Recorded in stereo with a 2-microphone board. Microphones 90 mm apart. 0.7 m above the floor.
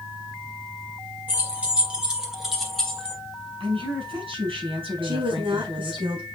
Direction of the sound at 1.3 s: 20° right (ahead or behind).